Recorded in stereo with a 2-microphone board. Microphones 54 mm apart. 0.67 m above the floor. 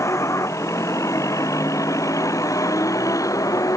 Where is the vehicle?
65° left (ahead or behind); by 3.8 s 85° left.